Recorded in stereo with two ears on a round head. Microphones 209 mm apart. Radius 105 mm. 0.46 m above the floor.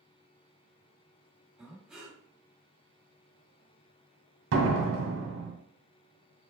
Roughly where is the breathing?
Centre.